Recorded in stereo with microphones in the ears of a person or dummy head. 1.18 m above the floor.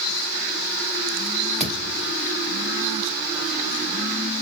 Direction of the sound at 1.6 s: 5° left (ahead or behind).